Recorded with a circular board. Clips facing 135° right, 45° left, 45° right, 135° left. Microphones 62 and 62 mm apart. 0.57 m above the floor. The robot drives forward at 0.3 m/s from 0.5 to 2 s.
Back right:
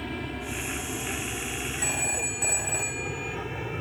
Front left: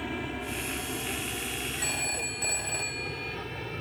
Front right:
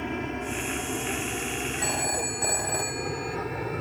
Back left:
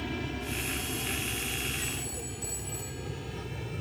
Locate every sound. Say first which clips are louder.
0.0 s an aircraft: even, front right 4 dB; 35° right; by 3.8 s 65° right
1.8 s a phone ringing: back right 2 dB, front right 9 dB; 55° right